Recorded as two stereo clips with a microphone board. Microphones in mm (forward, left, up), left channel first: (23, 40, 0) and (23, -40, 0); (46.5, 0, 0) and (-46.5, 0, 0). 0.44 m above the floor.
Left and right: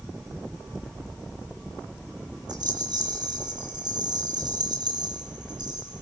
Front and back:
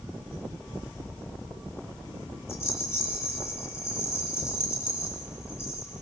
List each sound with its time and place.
2.5 s a rattle: 60° right, 8.5 m